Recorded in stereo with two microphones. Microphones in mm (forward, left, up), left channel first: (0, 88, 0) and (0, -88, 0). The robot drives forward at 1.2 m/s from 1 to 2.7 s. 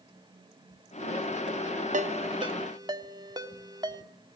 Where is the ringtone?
45° right (ahead or behind), 0.9 m; by 4.0 s 25° right (ahead or behind), 1.5 m.